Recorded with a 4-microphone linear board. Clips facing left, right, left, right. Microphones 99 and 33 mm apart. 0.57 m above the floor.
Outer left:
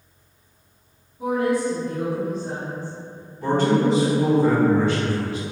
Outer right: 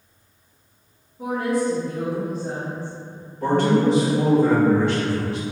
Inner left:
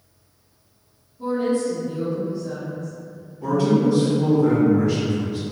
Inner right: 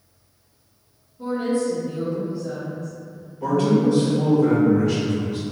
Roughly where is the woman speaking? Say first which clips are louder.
Outer left 1 dB, inner left 1 dB; right.